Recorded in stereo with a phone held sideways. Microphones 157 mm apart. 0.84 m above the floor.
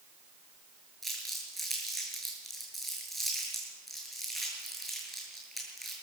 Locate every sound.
1.0 s crumpling: centre (ahead or behind), 6.5 m